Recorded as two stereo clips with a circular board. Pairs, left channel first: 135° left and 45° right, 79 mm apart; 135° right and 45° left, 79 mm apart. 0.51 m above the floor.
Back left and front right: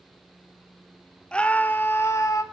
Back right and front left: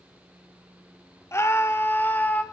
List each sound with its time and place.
1.3 s a scream: 155° right, 0.9 m; by 2.4 s 160° left, 1.1 m